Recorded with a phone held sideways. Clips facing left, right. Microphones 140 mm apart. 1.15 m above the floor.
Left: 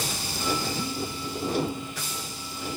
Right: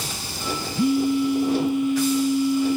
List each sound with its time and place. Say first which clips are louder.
0.8 s a phone buzzing: right 13 dB; 65° right (ahead or behind), 0.6 m